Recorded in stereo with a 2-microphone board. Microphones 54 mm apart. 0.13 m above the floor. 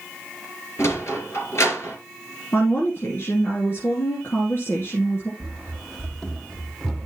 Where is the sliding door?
55° left (ahead or behind), 2.5 m.